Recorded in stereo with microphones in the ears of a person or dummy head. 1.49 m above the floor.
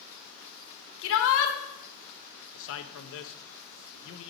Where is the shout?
80° left, 1.4 m.